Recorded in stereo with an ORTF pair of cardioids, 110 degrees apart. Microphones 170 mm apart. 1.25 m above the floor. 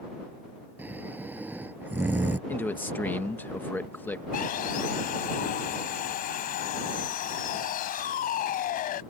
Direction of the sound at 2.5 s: 10° left.